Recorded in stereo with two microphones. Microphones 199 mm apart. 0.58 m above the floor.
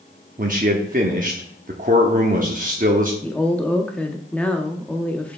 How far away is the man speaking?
About 0.8 m.